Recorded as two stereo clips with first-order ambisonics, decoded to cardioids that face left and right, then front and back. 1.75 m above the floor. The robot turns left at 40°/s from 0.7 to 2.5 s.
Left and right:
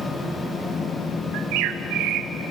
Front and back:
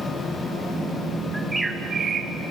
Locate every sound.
1.3 s a bird: 90° right, 1.2 m; by 2.3 s 130° right, 1.2 m